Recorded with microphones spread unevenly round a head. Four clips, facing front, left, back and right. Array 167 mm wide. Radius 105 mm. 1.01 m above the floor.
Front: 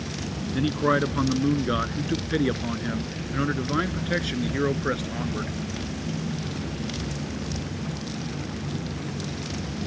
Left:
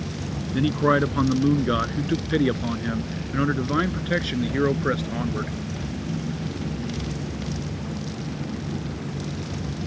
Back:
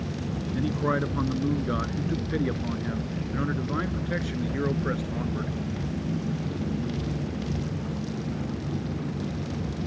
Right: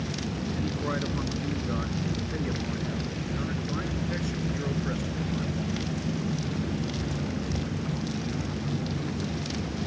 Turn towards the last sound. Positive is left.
turn(degrees=50)